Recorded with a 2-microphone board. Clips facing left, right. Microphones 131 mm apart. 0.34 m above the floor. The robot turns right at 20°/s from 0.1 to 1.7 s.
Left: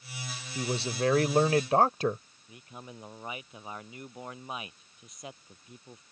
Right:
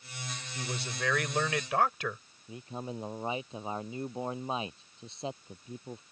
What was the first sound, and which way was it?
A man speaking, 30° left (ahead or behind).